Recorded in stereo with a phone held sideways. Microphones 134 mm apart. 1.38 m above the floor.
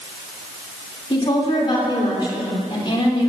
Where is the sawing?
No sawing in this recording.